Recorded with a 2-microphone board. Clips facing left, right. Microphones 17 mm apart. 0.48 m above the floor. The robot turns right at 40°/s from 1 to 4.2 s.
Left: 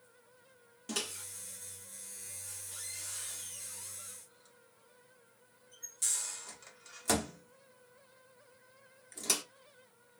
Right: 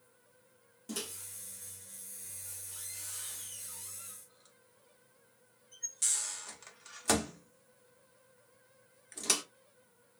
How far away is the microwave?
About 0.5 m.